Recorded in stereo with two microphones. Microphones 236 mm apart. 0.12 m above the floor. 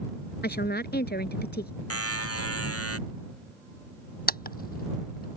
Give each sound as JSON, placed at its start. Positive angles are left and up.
{"t": 0.4, "sound": "a woman speaking", "side_deg": 45}
{"t": 1.9, "sound": "a buzzer", "side_deg": 75}
{"t": 4.3, "sound": "a camera shutter", "side_deg": 40}